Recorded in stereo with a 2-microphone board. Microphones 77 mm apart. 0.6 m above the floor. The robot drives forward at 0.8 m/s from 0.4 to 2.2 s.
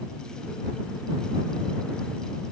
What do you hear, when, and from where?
Only background noise.